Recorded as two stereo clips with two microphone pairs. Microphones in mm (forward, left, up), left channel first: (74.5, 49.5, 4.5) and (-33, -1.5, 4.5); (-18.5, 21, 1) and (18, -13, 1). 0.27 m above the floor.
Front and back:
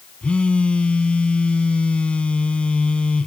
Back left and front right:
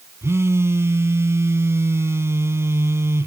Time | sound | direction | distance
0.2 | a phone buzzing | 55° right | 1.5 m